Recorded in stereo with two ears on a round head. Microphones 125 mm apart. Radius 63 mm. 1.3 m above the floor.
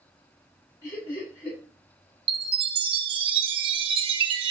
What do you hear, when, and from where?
0.8 s laughter: 20° left (ahead or behind), 6 m
2.3 s a chime: 35° right (ahead or behind), 1.0 m